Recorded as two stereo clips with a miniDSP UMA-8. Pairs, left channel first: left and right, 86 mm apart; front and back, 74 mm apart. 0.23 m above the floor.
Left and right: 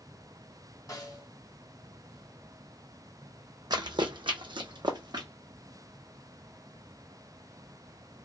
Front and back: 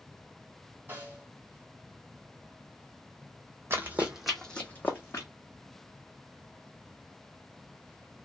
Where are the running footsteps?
125° right, 0.7 m; by 5.3 s 55° right, 0.9 m.